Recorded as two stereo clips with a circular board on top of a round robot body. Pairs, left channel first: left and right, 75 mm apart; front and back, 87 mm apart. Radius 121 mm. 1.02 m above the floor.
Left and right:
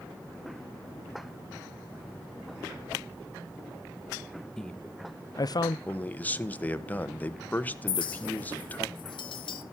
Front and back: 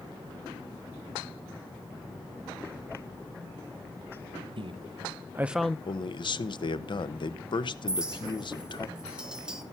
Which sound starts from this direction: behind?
A man speaking, at 4.6 s.